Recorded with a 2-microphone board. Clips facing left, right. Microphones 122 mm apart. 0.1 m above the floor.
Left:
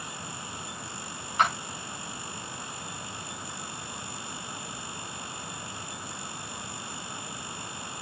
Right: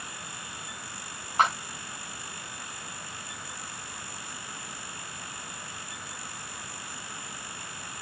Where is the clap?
40° right (ahead or behind), 7 m.